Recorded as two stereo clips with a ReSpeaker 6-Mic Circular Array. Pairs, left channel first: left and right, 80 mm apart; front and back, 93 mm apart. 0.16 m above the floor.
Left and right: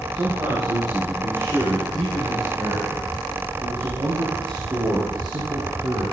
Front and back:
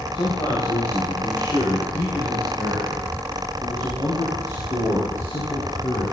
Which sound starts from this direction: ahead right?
A man speaking, at 0.1 s.